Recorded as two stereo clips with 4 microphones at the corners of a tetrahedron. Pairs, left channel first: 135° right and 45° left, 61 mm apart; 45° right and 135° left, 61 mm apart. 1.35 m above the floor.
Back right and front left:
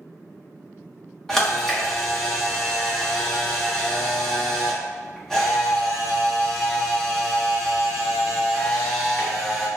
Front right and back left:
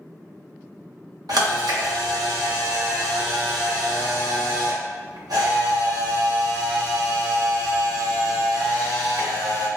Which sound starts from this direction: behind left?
A camera shutter, at 1.3 s.